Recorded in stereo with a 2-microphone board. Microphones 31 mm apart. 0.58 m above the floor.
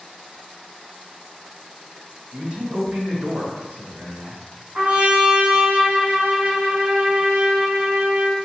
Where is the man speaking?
45° right (ahead or behind), 2 m; by 4.4 s 65° right (ahead or behind), 3 m.